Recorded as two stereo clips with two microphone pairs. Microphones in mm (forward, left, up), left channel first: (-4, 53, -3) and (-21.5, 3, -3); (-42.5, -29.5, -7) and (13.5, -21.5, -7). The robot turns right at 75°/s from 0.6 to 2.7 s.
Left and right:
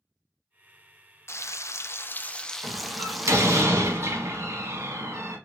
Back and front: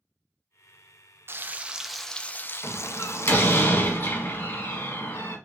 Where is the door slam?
135° right, 1.6 m; by 5.4 s 130° right, 1.6 m.